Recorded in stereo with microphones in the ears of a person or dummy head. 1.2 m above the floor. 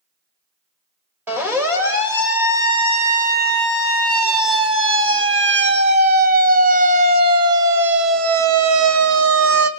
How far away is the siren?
About 4 m.